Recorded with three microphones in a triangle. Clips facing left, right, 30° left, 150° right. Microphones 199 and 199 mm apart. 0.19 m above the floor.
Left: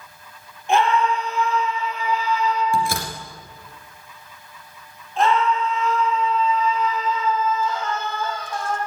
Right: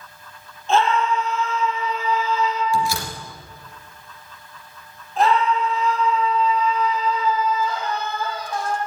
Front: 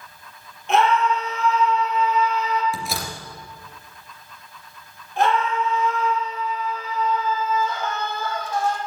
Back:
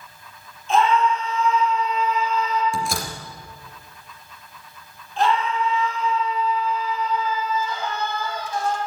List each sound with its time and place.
0.7 s a scream: 15° left, 5.5 m
2.7 s a door slam: 115° left, 2.5 m
5.2 s a scream: 5° right, 7 m